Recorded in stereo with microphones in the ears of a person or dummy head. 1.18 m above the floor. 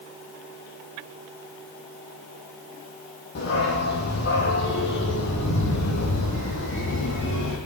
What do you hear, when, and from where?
3.4 s a dog barking: 55° left (ahead or behind), 10 m; by 7.6 s 65° left (ahead or behind), 11 m